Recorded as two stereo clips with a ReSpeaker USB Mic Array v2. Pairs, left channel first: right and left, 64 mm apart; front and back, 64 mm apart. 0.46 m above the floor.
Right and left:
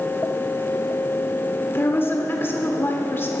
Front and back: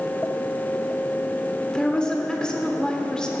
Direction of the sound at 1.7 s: 70° right.